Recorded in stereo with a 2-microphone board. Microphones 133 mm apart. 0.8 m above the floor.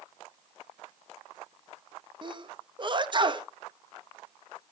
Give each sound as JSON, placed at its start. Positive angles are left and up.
{"t": 2.2, "sound": "a sneeze", "side_deg": -35, "distance_m": 0.7}